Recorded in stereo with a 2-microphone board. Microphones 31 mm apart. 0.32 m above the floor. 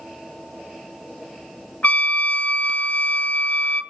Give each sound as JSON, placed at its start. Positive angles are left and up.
{"t": 1.8, "sound": "a trumpet", "side_deg": 60, "distance_m": 1.2}